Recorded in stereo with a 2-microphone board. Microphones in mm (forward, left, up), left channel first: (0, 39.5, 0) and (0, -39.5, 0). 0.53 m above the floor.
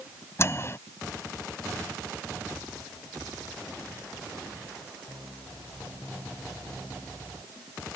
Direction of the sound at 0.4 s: 35° left (ahead or behind).